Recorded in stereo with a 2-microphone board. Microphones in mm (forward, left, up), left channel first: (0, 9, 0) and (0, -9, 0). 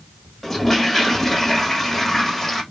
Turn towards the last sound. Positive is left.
turn(degrees=15)  # may be behind; listen again after turning